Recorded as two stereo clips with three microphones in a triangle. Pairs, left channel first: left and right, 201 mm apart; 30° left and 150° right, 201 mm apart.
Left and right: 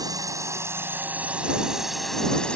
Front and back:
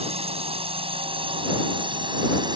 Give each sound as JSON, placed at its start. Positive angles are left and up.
{"t": 0.0, "sound": "a drone", "azimuth_deg": -140}